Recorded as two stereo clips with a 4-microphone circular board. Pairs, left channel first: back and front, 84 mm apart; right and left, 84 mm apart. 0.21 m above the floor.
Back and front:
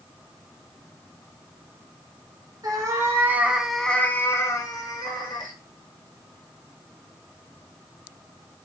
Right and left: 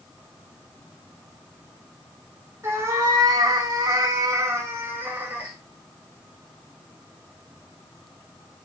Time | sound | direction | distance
2.6 | a cat meowing | 35° left | 0.9 m